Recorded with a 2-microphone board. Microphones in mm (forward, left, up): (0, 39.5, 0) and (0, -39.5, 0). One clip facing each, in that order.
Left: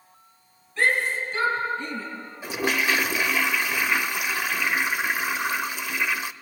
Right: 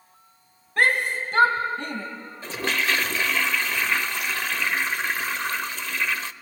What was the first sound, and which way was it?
A shout, 65° right (ahead or behind).